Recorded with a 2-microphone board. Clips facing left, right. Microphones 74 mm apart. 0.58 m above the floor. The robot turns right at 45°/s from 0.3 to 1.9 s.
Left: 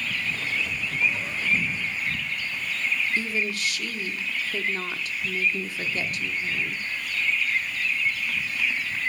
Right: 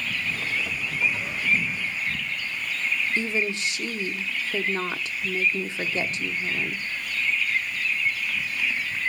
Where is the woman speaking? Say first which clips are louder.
Right 2 dB; 25° right (ahead or behind), 1.0 m.